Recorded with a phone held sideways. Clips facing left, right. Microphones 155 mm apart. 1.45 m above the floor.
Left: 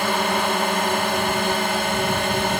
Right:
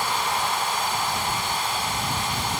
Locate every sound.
0.0 s a drone: 65° left (ahead or behind)